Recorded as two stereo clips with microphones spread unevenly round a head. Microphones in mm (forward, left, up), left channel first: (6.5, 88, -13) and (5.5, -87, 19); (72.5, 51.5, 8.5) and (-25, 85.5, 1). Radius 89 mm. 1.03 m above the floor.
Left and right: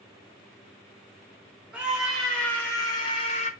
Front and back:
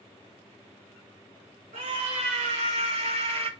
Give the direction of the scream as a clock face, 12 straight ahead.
6 o'clock.